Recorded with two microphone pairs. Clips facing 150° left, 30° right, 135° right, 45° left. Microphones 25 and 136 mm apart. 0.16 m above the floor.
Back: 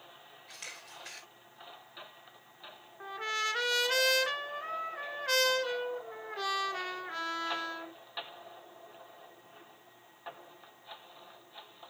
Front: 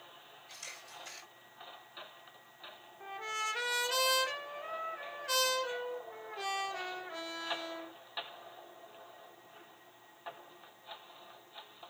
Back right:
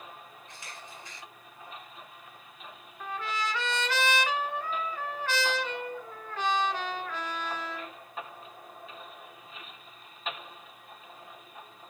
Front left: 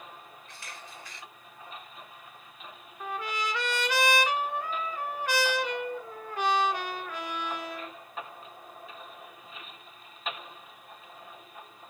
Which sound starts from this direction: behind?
A camera shutter, at 0.5 s.